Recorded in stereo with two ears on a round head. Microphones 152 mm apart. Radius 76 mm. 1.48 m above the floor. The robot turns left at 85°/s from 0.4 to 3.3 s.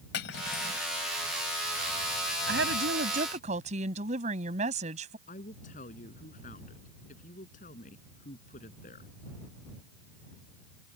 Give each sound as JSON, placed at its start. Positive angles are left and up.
{"t": 0.1, "sound": "cutlery clinking", "azimuth_deg": 80}
{"t": 2.5, "sound": "a woman speaking", "azimuth_deg": -65}
{"t": 5.3, "sound": "a woman speaking", "side_deg": 50}